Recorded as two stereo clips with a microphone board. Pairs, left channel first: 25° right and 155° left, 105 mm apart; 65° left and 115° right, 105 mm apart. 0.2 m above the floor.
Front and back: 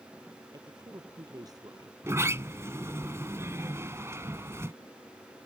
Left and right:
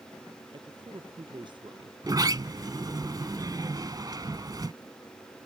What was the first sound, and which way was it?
A man speaking, 150° right.